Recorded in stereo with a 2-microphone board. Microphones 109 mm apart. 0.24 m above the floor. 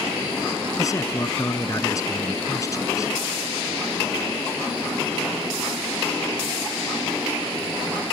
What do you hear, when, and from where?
0.8 s a man speaking: 30° left (ahead or behind)